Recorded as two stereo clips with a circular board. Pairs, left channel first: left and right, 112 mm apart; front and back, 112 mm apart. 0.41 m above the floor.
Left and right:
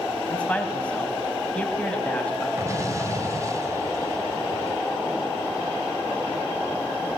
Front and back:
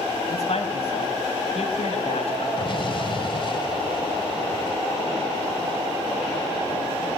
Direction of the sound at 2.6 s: 35° right.